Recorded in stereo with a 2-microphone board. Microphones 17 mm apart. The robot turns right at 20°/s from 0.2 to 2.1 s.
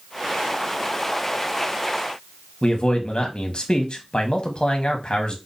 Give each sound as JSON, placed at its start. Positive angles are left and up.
{"t": 2.6, "sound": "a man speaking", "side_deg": 60, "distance_m": 1.4}